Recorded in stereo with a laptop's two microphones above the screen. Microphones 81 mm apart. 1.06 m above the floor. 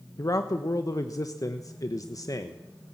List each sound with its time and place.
0.2 s a man speaking: 45° left (ahead or behind), 1.0 m